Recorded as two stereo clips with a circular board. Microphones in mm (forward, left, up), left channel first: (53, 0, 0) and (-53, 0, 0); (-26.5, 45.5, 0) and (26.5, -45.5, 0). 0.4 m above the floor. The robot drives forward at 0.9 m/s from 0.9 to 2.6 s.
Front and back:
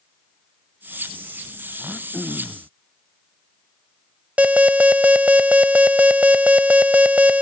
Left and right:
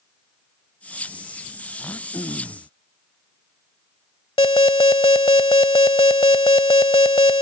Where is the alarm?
105° left.